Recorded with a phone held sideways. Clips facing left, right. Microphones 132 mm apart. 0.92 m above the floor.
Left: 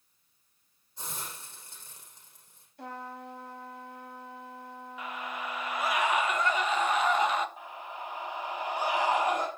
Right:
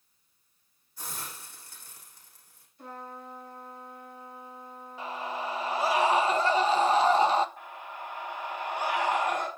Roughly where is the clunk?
No clunk in this recording.